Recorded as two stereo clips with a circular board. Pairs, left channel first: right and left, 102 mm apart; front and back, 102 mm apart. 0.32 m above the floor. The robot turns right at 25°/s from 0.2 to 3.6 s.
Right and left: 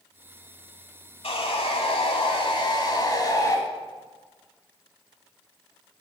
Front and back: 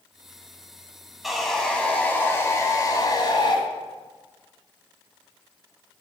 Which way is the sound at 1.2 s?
90° right.